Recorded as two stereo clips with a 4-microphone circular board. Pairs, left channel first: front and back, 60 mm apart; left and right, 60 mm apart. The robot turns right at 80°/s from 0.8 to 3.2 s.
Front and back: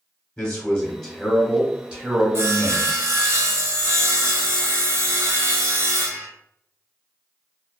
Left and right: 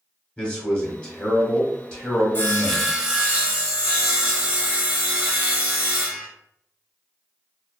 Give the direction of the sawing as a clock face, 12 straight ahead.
7 o'clock.